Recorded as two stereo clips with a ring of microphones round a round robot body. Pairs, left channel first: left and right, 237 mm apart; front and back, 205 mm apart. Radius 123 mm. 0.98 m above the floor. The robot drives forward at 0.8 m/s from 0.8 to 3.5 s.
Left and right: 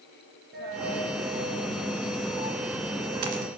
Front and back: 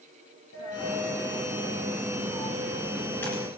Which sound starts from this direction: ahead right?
A dropped coin, at 0.5 s.